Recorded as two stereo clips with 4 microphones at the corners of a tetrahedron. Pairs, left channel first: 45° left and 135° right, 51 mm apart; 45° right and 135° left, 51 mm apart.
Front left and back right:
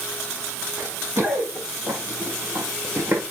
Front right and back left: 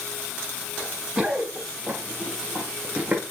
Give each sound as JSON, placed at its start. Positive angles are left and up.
{"t": 0.8, "sound": "running footsteps", "azimuth_deg": -150, "distance_m": 7.5}